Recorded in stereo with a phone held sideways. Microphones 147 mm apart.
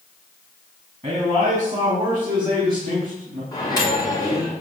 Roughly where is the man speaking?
Right.